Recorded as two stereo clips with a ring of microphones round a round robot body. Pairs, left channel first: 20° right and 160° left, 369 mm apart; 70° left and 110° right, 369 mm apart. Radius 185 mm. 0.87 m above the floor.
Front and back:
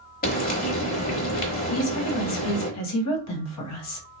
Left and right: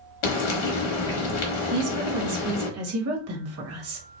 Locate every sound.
0.2 s frying: 45° left, 0.9 m
1.7 s a woman speaking: 65° right, 1.2 m